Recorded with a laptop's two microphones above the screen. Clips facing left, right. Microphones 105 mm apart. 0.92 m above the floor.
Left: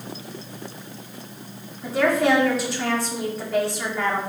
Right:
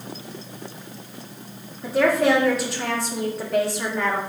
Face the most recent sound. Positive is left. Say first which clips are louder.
# right 1 dB
turn(degrees=0)  # may be behind; listen again after turning